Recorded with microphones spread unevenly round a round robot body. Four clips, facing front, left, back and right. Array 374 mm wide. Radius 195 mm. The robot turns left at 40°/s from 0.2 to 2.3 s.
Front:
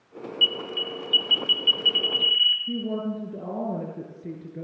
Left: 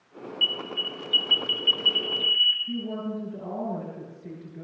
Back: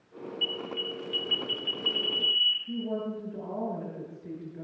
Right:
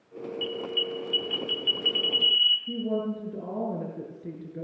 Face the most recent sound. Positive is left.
turn(degrees=-25)